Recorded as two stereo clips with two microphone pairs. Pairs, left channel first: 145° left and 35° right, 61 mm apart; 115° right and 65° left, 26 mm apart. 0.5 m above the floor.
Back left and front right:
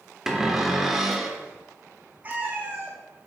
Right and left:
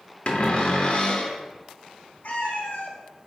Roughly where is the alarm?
I don't hear an alarm.